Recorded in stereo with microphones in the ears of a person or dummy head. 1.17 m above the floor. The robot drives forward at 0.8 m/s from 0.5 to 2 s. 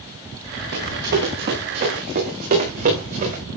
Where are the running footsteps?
55° right (ahead or behind), 7.5 m; by 3.4 s 40° right (ahead or behind), 10.5 m.